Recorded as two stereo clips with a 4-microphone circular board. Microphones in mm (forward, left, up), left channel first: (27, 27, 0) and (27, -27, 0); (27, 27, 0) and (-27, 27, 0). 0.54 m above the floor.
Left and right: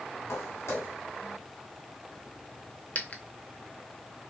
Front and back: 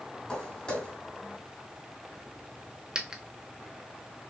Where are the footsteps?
70° left, 1.5 m.